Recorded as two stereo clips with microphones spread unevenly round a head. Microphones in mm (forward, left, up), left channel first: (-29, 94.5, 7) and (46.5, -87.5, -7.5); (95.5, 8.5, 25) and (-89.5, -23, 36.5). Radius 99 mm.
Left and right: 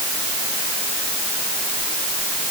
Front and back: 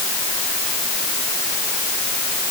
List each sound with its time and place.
Only background noise.